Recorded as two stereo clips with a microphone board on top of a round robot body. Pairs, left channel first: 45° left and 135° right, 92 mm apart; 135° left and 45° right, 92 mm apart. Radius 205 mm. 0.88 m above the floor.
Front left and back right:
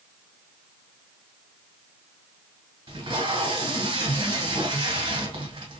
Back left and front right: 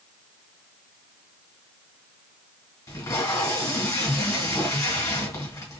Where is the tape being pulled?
170° right, 1.6 m.